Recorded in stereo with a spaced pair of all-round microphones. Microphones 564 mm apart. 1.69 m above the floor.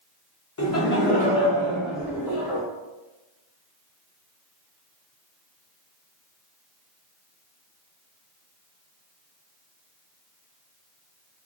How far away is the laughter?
About 0.8 m.